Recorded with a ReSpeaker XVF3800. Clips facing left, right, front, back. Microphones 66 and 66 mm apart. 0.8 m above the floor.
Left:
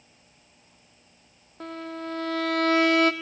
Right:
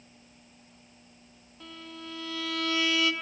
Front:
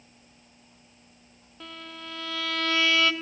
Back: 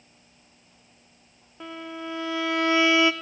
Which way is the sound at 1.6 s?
115° left.